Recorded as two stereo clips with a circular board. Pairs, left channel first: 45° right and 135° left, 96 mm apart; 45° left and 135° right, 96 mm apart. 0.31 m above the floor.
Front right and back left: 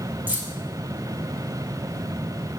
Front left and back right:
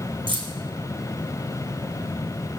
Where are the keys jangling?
155° right, 2.0 m.